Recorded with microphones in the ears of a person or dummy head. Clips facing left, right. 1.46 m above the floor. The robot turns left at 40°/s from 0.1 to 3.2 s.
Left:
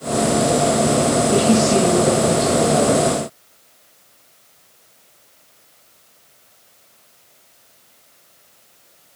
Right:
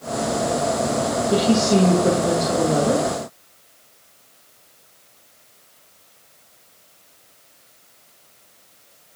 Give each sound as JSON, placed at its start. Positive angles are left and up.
{"t": 1.3, "sound": "a woman speaking", "azimuth_deg": -30, "distance_m": 6.5}